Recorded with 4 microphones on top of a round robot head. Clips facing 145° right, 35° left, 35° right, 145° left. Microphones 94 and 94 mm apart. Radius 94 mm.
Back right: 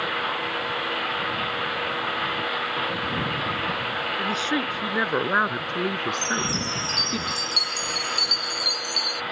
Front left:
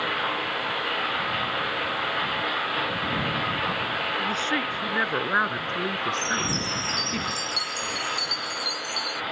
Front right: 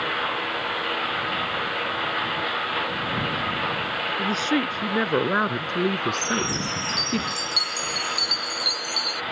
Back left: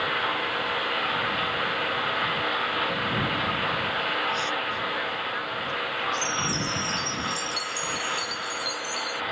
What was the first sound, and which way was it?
A woman speaking, 70° right.